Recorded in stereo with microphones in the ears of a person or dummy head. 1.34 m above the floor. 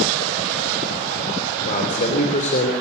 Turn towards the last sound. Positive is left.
turn(degrees=45)  # may be behind; listen again after turning